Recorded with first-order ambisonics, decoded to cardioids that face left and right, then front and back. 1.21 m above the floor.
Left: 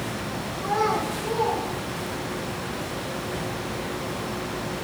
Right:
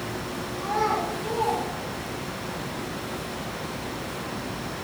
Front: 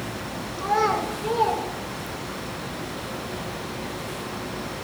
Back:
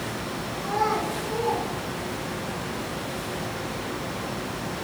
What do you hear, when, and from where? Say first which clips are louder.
0.6 s a child speaking: left 1 dB, front 3 dB; 5° left, 4 m